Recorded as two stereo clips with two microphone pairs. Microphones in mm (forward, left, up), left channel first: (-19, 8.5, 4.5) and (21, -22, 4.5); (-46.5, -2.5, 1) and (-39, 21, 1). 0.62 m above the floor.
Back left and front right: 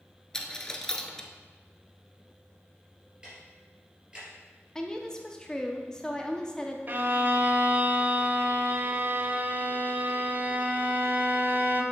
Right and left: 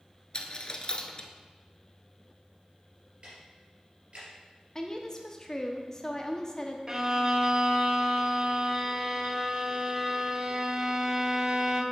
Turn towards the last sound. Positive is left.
turn(degrees=5)